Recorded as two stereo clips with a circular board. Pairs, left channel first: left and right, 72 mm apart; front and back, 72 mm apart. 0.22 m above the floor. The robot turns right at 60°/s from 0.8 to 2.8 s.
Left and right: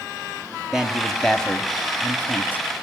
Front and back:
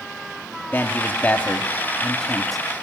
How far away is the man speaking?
About 1.0 m.